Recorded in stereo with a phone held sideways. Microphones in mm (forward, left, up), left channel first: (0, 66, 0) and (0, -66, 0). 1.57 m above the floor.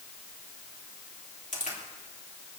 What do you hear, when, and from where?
1.5 s a crack: 65° left (ahead or behind), 3.5 m